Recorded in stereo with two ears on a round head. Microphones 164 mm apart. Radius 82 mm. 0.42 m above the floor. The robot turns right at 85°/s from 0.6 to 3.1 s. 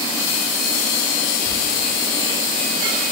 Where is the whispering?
30° left (ahead or behind), 0.8 m.